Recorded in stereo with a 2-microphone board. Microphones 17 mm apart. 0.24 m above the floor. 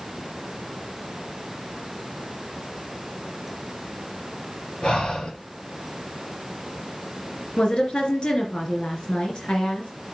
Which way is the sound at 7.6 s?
65° left (ahead or behind).